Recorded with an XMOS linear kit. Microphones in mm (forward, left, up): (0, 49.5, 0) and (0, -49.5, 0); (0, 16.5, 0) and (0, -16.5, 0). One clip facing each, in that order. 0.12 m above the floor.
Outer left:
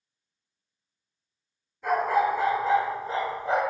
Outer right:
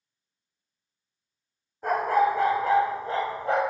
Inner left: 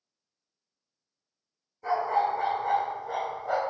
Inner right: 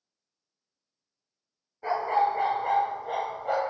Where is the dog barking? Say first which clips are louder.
Outer right 1 dB, inner right 1 dB; 45° right (ahead or behind), 1.0 m; by 3.6 s 60° right (ahead or behind), 1.4 m.